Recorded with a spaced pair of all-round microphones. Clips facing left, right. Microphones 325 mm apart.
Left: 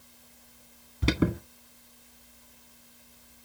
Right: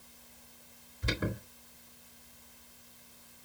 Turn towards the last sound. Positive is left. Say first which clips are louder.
# left 10 dB
turn(degrees=75)  # may be behind; listen again after turning